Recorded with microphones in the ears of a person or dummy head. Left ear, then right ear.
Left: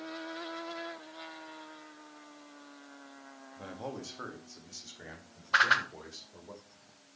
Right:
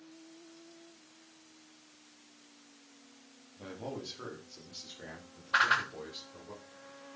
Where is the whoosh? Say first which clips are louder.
Left 2 dB; 25° left (ahead or behind), 1.3 m.